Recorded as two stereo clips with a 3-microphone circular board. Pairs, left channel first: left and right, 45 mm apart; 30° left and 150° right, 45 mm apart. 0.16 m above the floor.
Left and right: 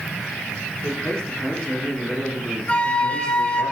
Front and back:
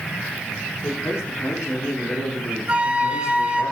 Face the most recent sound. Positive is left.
turn(degrees=150)